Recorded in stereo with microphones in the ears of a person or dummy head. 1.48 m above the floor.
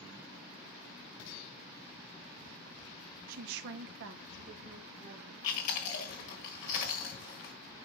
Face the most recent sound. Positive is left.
turn(degrees=40)  # may be behind; listen again after turning